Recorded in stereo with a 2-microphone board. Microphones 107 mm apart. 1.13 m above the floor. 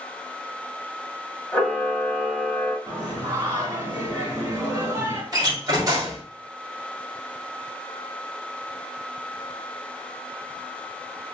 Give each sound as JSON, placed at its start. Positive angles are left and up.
{"t": 1.5, "sound": "a camera shutter", "side_deg": 15, "distance_m": 1.3}
{"t": 2.9, "sound": "singing", "side_deg": -35, "distance_m": 2.0}
{"t": 5.3, "sound": "a door slam", "side_deg": -35, "distance_m": 1.5}